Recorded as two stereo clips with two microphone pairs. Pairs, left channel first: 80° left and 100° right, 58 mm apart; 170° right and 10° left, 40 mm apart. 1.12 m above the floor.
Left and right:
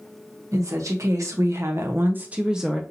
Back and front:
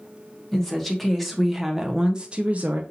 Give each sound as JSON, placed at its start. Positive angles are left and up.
{"t": 0.5, "sound": "a woman speaking", "azimuth_deg": -90, "distance_m": 1.2}